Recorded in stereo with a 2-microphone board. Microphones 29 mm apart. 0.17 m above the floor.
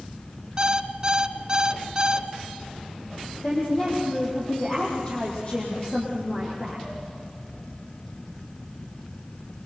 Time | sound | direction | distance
0.6 | an alarm clock | 30° right (ahead or behind) | 0.9 m
3.4 | a woman speaking | 35° left (ahead or behind) | 6.5 m